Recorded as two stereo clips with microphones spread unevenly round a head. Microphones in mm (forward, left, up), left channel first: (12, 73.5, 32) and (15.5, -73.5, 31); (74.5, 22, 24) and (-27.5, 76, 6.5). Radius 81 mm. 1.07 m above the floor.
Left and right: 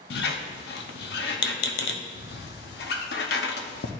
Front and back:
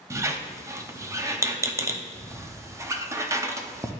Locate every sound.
0.1 s a squeak: 85° left, 0.8 m